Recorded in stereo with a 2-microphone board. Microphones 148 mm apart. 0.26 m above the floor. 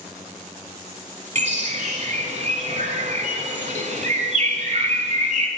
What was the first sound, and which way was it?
A bird, 55° right (ahead or behind).